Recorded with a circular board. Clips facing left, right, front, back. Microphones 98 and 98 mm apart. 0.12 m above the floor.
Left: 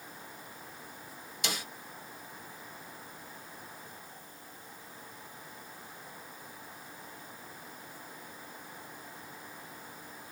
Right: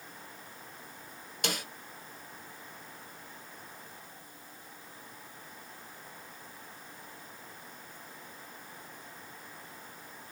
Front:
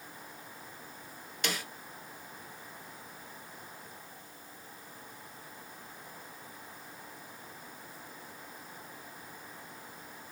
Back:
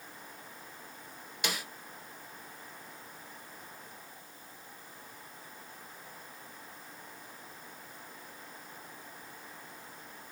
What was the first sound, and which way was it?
A snare drum, 100° right.